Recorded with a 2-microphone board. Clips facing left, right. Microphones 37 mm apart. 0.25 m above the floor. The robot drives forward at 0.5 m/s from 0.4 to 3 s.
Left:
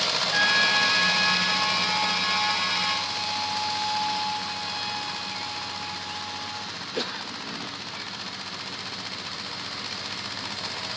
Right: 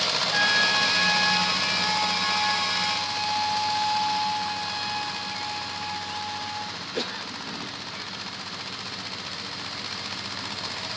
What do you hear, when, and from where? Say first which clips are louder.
0.3 s a trumpet: left 1 dB; centre (ahead or behind), 0.6 m